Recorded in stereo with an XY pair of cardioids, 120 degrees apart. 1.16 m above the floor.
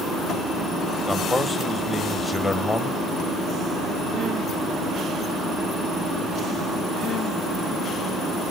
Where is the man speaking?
20° left, 1.1 m.